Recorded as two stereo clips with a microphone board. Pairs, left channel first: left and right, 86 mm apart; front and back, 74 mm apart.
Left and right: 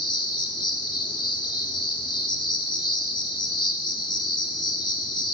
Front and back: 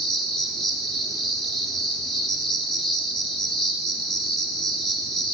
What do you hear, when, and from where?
0.0 s an insect: 80° left, 0.9 m